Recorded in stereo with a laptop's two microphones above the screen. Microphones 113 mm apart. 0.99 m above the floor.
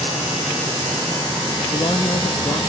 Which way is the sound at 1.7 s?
45° left (ahead or behind).